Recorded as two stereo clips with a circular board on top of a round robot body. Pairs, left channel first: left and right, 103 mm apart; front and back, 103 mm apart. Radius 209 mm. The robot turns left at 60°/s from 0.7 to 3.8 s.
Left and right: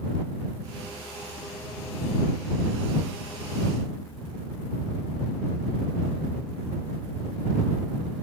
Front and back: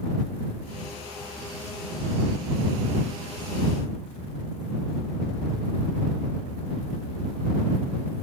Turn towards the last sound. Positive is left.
No sound to turn to.